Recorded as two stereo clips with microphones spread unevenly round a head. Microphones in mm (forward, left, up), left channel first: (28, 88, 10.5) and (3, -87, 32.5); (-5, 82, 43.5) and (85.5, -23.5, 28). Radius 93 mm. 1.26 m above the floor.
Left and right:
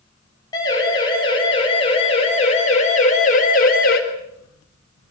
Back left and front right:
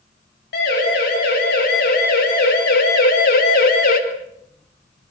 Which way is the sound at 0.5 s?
150° left.